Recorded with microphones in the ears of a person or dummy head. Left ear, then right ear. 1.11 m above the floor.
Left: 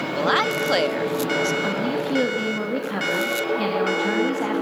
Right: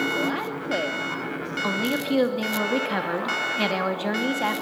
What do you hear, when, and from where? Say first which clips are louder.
0.1 s a woman speaking: left 7 dB; 55° left (ahead or behind), 1.6 m
1.6 s a woman speaking: left 1 dB; 20° right (ahead or behind), 2.5 m